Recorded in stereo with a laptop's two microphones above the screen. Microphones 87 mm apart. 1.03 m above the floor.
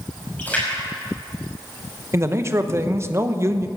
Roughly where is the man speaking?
Right.